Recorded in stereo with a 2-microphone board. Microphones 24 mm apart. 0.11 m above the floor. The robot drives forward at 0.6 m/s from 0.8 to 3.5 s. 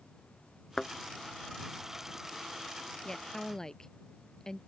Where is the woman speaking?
25° left (ahead or behind).